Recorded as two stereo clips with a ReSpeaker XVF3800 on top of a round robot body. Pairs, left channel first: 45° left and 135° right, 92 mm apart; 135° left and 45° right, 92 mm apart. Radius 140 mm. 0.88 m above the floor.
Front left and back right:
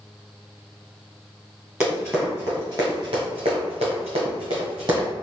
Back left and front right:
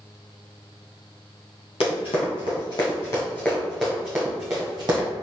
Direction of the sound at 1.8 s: 145° left.